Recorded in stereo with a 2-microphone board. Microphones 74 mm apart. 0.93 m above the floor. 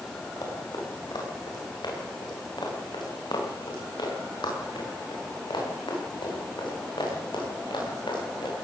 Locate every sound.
0.4 s running footsteps: 60° left (ahead or behind), 9.5 m; by 8.5 s 85° left, 12 m